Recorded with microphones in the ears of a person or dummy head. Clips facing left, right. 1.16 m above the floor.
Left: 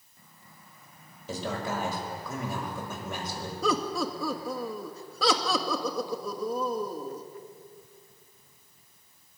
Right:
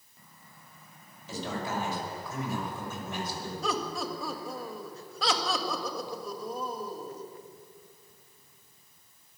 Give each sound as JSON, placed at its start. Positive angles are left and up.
{"t": 1.3, "sound": "a man speaking", "side_deg": 45, "distance_m": 5.5}
{"t": 3.6, "sound": "laughter", "side_deg": 80, "distance_m": 1.6}